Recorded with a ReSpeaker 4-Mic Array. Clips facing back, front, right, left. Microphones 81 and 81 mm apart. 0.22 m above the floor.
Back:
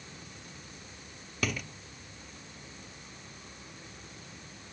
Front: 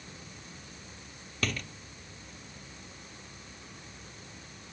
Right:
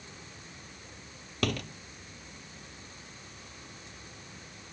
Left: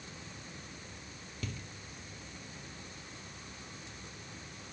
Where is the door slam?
95° right.